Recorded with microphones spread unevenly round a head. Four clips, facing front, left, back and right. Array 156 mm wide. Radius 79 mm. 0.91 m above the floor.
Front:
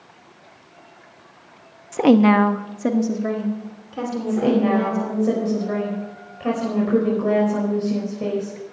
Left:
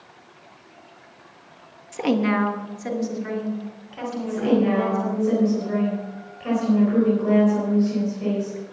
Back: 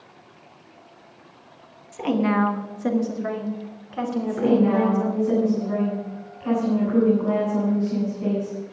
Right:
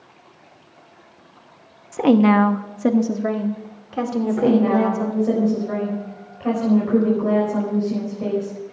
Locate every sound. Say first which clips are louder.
1.9 s a woman speaking: right 7 dB, front 8 dB; 15° right, 1.0 m; by 5.3 s 90° right, 4 m
4.3 s a woman speaking: right 2 dB, front 1 dB; 25° right, 5 m